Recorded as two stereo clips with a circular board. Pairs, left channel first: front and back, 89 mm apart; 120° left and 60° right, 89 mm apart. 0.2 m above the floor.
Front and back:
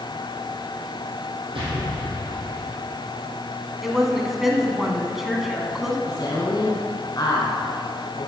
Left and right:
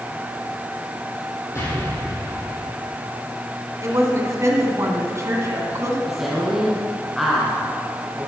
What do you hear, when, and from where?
1.6 s an explosion: 175° left, 5.5 m
3.8 s a woman speaking: 95° right, 2 m
6.1 s a woman speaking: 25° left, 2 m